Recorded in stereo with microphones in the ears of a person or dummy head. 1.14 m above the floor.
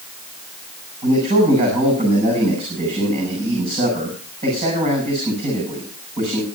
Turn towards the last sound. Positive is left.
turn(degrees=-35)  # may be behind; listen again after turning